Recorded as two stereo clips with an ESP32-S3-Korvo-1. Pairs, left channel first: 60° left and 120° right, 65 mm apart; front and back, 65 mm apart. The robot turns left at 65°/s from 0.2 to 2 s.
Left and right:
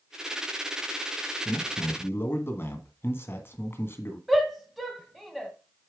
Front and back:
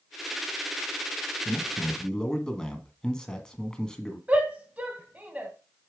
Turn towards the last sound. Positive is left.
turn(degrees=160)